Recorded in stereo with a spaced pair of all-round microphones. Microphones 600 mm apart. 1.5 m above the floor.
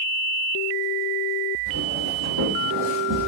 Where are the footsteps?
40° right (ahead or behind), 4 m; by 3.3 s 30° right (ahead or behind), 4 m.